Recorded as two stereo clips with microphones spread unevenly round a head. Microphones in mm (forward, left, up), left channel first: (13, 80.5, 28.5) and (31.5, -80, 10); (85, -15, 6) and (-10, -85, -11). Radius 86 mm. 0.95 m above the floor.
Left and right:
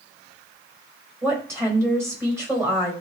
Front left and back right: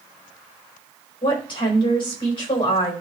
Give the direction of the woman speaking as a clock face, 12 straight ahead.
12 o'clock.